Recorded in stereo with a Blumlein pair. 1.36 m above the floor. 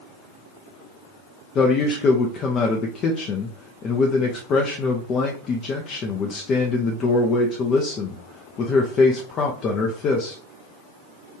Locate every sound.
1.6 s a man speaking: 30° left, 0.7 m